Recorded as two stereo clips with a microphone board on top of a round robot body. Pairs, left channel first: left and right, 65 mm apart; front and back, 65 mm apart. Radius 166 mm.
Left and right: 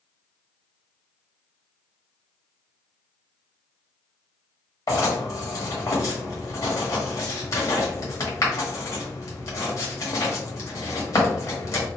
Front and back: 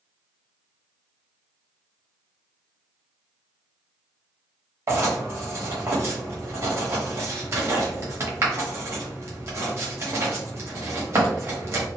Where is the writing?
130° left, 1.4 m.